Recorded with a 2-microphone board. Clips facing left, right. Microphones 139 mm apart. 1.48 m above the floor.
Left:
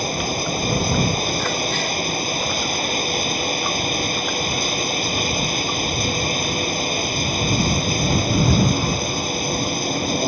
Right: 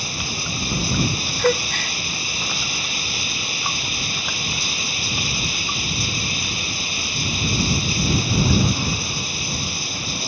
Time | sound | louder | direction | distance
0.0 | running water | left 8 dB | 50° left (ahead or behind) | ?
1.4 | a gasp | right 3 dB | 55° right (ahead or behind) | ?